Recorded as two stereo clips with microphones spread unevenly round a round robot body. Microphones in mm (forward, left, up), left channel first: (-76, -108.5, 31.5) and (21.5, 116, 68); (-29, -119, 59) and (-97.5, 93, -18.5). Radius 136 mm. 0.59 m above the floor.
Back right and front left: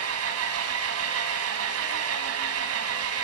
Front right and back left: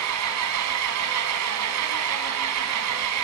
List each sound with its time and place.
0.0 s an engine running: 95° left, 1.7 m